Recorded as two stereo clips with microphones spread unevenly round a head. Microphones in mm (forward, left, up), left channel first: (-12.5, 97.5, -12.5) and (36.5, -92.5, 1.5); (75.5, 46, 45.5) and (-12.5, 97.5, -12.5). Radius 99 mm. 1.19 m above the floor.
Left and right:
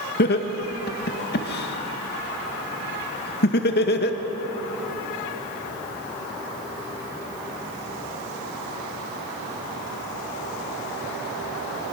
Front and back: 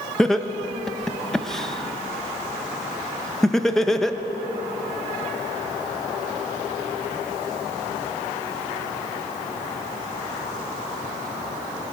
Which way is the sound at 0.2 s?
65° left.